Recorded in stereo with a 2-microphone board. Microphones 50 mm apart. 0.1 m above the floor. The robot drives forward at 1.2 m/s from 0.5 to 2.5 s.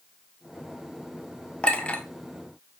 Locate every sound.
1.6 s a clink: 20° left (ahead or behind), 1.7 m; by 2.0 s 25° left (ahead or behind), 1.3 m